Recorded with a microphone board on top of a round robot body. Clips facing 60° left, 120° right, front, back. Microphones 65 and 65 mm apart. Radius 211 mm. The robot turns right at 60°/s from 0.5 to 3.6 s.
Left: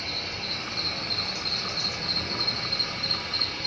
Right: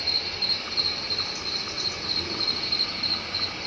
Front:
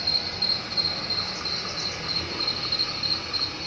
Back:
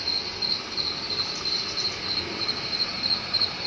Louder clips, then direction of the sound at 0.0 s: Even, front 1 dB; 20° right.